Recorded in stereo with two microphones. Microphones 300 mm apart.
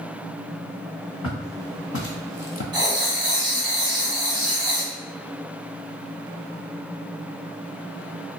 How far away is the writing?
About 0.6 m.